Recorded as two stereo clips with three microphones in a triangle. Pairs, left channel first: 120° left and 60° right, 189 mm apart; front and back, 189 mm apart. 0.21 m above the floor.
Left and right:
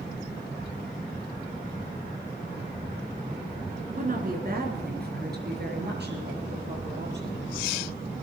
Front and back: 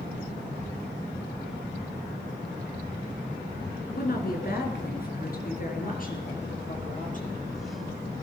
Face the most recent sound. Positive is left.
turn(degrees=-45)